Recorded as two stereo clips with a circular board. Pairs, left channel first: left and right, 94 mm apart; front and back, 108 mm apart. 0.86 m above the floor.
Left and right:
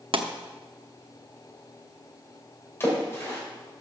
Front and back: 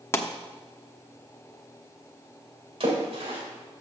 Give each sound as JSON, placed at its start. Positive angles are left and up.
{"t": 0.1, "sound": "a pop", "azimuth_deg": -65, "distance_m": 0.8}
{"t": 2.8, "sound": "a splash", "azimuth_deg": 155, "distance_m": 3.0}